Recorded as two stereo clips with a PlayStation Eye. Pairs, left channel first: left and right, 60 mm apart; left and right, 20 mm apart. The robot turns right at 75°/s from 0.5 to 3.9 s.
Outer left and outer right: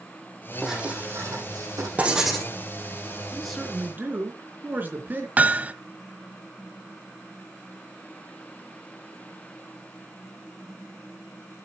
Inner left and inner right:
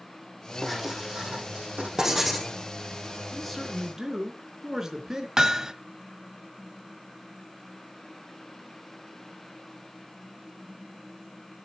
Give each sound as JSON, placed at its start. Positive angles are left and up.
{"t": 0.6, "sound": "writing", "azimuth_deg": 180, "distance_m": 4.5}
{"t": 2.0, "sound": "writing", "azimuth_deg": -25, "distance_m": 4.0}
{"t": 3.3, "sound": "a man speaking", "azimuth_deg": 170, "distance_m": 3.5}
{"t": 5.4, "sound": "hammering", "side_deg": -25, "distance_m": 0.7}